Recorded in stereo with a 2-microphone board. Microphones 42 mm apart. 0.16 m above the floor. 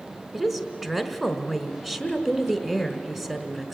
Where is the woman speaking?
10° right (ahead or behind), 1.3 m.